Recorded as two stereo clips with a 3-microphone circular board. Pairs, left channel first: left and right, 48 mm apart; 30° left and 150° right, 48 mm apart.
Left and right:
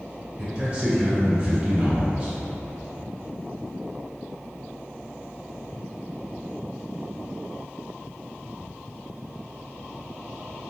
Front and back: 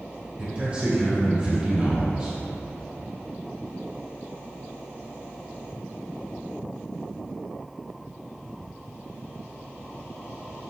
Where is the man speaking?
125° right, 1.3 m.